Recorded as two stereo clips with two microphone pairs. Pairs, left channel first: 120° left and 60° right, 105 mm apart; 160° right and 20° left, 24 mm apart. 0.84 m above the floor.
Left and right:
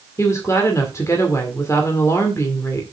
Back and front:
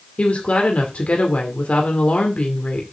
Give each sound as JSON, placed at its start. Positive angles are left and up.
{"t": 0.2, "sound": "a woman speaking", "azimuth_deg": 180, "distance_m": 2.0}